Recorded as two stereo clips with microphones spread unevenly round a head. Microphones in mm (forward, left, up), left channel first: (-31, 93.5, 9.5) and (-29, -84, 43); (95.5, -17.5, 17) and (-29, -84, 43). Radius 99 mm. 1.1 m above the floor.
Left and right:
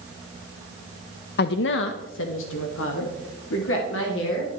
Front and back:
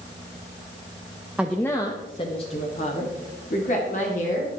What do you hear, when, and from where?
1.4 s a woman speaking: 120° left, 0.5 m; by 4.5 s 75° left, 3 m